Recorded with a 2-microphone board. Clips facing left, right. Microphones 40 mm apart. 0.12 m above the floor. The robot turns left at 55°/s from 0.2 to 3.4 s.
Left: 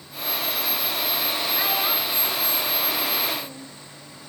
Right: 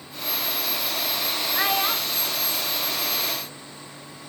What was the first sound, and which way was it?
A child speaking, 20° right (ahead or behind).